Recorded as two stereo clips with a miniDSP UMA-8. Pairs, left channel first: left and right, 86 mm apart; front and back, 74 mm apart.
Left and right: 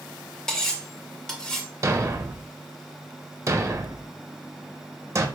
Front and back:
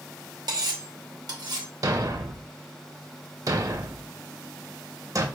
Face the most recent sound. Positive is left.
turn(degrees=-145)